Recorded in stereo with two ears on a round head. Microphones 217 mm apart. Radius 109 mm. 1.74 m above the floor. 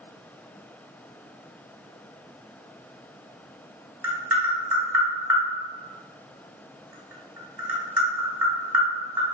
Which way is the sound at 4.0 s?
5° right (ahead or behind).